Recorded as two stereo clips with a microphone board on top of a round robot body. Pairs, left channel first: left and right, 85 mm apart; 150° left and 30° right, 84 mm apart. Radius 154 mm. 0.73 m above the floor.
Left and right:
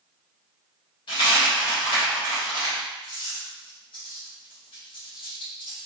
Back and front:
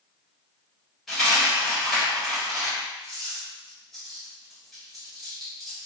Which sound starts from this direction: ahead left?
A dropped coin, at 1.1 s.